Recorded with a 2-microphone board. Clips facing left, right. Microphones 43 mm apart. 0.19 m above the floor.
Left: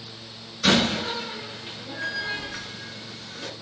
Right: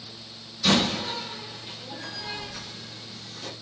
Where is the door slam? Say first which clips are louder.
Left 2 dB; 50° left (ahead or behind), 1.8 m.